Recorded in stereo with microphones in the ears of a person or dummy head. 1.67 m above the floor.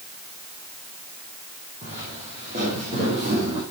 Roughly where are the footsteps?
Right.